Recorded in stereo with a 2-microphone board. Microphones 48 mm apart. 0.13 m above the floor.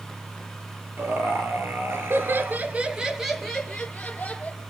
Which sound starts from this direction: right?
Laughter, at 1.0 s.